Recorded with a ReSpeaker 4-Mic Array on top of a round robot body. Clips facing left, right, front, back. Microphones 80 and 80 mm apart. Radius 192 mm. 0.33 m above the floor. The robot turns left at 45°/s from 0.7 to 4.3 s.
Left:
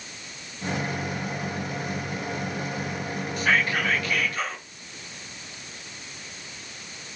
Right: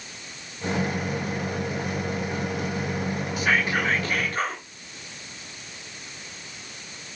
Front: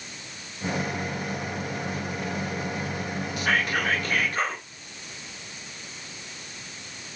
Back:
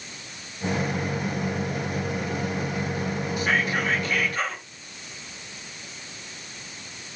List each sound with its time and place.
3.4 s whispering: 5° right, 2.5 m; by 4.6 s 45° right, 2.5 m